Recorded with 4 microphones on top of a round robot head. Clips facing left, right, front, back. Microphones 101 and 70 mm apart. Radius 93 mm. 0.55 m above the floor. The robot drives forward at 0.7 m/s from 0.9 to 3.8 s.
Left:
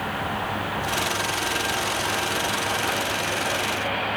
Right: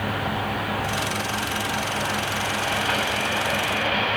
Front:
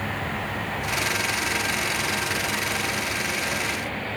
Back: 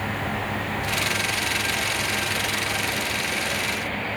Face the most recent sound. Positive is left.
No sound to turn to.